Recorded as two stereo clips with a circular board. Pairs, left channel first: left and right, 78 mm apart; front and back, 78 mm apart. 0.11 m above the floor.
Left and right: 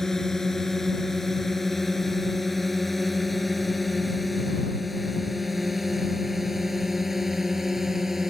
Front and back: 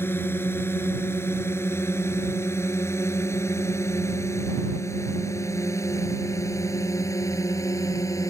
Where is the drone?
10° left; by 8.3 s 5° right.